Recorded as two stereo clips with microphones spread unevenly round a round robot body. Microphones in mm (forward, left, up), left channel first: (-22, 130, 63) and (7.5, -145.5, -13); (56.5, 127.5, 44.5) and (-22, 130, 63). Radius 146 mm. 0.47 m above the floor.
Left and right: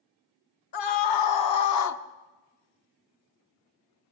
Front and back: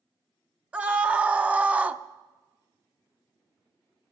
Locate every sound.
0.7 s a scream: 100° left, 2.5 m; by 2.0 s 95° left, 1.3 m